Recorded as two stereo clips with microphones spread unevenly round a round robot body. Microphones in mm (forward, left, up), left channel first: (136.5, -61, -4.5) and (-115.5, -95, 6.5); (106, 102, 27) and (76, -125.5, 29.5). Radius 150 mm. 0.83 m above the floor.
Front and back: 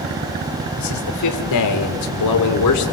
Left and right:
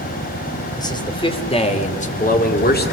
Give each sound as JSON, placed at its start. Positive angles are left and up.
{"t": 0.8, "sound": "a man speaking", "azimuth_deg": 10, "distance_m": 2.5}